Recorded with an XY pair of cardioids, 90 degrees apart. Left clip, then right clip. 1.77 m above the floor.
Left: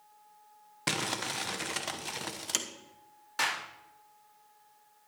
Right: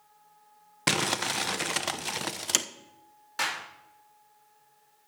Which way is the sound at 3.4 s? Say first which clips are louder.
Even; straight ahead.